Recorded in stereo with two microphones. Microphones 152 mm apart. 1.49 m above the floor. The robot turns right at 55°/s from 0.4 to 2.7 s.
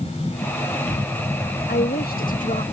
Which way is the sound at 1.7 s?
80° left.